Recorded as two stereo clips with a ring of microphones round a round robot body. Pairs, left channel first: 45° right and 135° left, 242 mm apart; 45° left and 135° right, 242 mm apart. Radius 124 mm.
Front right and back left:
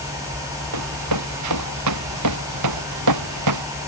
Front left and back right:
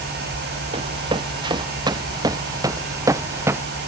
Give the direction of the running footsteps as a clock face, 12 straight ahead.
7 o'clock.